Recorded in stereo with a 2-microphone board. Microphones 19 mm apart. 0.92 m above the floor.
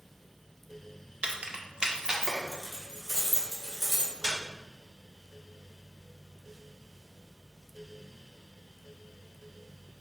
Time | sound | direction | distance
1.2 | keys jangling | 70° right (ahead or behind) | 0.7 m